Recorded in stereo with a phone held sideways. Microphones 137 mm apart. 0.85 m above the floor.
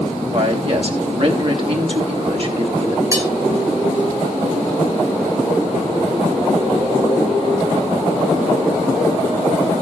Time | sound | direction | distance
0.3 | a man speaking | 45° right (ahead or behind) | 3.5 m
3.1 | cutlery clinking | 25° right (ahead or behind) | 4 m